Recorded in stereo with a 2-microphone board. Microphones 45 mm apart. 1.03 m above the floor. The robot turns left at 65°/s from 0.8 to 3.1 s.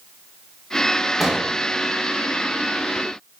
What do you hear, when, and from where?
1.2 s an explosion: 5° right (ahead or behind), 0.8 m; by 1.5 s 25° right (ahead or behind), 0.8 m